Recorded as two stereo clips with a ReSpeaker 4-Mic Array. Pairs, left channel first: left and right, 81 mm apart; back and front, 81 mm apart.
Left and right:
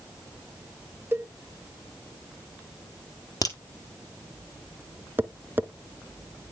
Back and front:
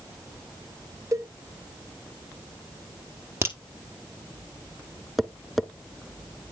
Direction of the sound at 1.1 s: 35° right.